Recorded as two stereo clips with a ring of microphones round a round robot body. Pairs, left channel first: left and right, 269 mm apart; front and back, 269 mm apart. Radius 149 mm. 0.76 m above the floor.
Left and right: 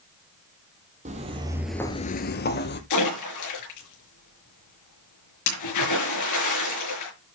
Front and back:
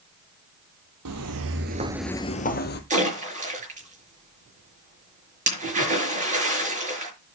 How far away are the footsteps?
About 1.5 m.